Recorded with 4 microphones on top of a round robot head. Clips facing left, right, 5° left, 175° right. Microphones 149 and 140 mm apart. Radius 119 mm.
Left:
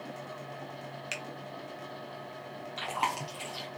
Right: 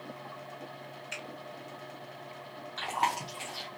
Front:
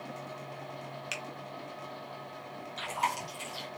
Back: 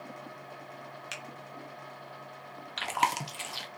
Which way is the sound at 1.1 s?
95° left.